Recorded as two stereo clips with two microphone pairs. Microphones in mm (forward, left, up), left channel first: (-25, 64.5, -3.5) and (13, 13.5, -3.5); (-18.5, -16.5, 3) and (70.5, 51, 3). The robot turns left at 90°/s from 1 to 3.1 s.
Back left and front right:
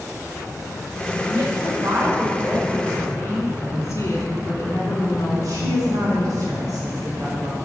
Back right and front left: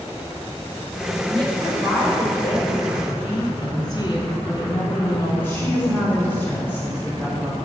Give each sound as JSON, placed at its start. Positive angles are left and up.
{"t": 1.3, "sound": "a woman speaking", "azimuth_deg": -5, "distance_m": 4.0}
{"t": 3.6, "sound": "a woman speaking", "azimuth_deg": 170, "distance_m": 3.0}
{"t": 5.4, "sound": "a woman speaking", "azimuth_deg": -65, "distance_m": 3.0}